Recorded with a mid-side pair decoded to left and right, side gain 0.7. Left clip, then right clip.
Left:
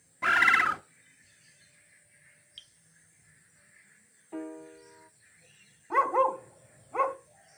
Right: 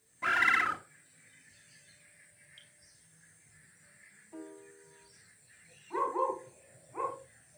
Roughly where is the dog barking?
Ahead left.